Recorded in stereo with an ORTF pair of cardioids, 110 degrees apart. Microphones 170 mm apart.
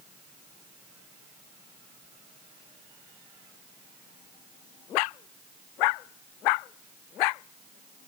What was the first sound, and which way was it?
Only background noise.